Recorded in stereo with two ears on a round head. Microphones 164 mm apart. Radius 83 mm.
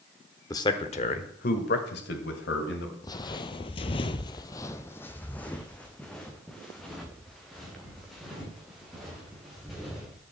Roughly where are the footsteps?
Left.